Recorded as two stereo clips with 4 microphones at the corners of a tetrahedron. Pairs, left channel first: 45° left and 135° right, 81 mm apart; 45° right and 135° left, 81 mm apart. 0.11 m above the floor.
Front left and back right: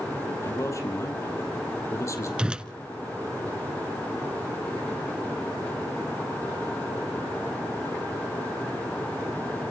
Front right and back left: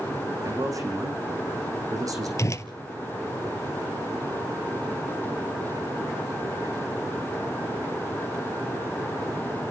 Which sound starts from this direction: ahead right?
A whoosh, at 2.4 s.